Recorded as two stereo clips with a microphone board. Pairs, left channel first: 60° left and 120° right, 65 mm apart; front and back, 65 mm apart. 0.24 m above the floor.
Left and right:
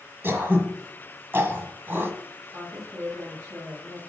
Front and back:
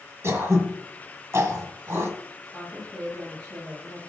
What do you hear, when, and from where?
0.2 s throat clearing: 160° right, 1.6 m
2.5 s a woman speaking: 80° right, 5 m